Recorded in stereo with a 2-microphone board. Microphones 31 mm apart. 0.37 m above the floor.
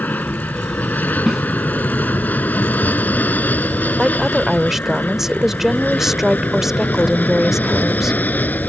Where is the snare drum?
20° right (ahead or behind).